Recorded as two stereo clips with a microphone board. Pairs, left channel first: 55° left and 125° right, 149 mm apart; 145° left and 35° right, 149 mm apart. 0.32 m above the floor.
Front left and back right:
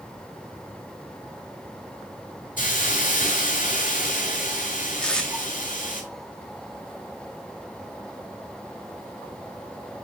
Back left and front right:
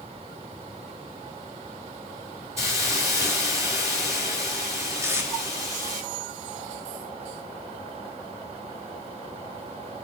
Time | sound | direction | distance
2.6 | a hiss | 35° left | 4.5 m
5.0 | tape being pulled | 15° right | 1.5 m